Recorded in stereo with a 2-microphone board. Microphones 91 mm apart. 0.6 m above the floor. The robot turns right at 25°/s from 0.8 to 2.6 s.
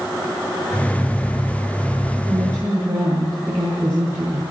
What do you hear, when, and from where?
2.2 s a woman speaking: 35° right (ahead or behind), 8 m; by 4.4 s 25° right (ahead or behind), 8 m